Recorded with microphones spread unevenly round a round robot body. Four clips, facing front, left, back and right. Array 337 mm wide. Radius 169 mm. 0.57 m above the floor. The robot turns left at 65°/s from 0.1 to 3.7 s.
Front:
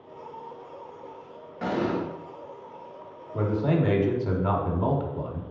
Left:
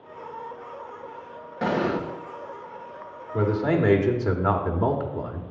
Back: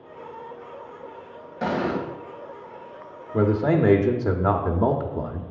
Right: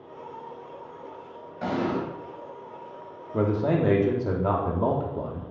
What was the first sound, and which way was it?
An explosion, 95° left.